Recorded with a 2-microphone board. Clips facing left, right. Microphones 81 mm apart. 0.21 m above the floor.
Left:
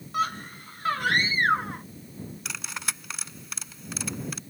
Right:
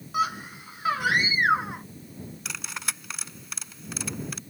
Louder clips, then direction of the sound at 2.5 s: Right 1 dB; centre (ahead or behind).